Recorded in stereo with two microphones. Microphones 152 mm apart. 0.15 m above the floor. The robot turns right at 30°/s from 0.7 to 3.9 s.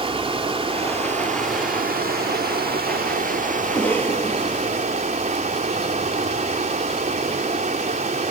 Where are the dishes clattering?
No dishes clattering in this recording.